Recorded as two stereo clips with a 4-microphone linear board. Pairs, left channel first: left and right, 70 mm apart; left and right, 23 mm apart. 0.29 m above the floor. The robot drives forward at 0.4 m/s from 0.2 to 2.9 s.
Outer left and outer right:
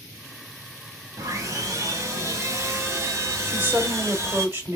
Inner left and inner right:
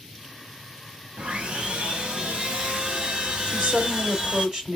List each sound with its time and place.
1.2 s sawing: 55° right (ahead or behind), 1.2 m; by 4.5 s 40° right (ahead or behind), 1.4 m
3.5 s a woman speaking: 30° right (ahead or behind), 1.2 m